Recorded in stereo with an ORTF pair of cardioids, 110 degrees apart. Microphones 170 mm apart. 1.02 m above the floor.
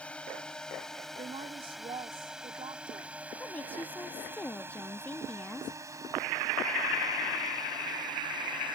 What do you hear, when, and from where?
0.0 s a drone: 5° left; by 8.8 s 30° right
1.2 s a woman speaking: 35° right
3.4 s a woman speaking: 10° left